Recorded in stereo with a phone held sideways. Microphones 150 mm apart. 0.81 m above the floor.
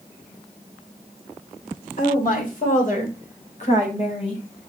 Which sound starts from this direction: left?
A woman speaking, at 2.0 s.